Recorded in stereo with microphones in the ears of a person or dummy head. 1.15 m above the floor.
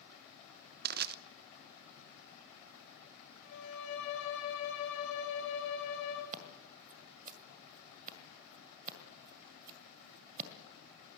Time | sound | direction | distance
0.8 | crushing | 50° right (ahead or behind) | 0.8 m
3.4 | a violin | 70° left (ahead or behind) | 5 m
6.3 | scissors | 50° right (ahead or behind) | 1.9 m